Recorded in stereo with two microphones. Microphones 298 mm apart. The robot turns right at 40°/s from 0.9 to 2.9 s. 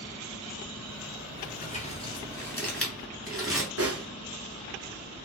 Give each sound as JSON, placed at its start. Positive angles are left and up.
{"t": 1.4, "sound": "crumpling", "side_deg": 30, "distance_m": 1.2}
{"t": 3.8, "sound": "a snare drum", "side_deg": -50, "distance_m": 0.6}